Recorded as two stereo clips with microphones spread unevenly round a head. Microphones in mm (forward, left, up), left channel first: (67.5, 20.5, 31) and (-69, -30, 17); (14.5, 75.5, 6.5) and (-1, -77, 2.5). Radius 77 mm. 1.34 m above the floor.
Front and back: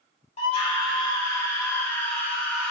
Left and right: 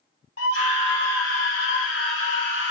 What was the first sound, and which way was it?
A scream, 70° left.